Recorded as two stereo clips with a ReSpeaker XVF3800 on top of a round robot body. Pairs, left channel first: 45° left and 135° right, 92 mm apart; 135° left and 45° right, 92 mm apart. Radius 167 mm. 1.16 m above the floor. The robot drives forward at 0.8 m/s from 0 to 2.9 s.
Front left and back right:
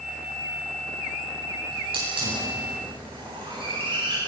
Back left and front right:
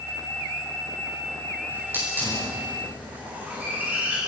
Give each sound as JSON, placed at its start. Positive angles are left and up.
{"t": 1.7, "sound": "a hiss", "azimuth_deg": -115, "distance_m": 10.0}